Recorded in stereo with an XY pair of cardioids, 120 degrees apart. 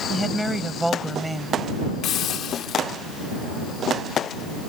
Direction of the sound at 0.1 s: 5° right.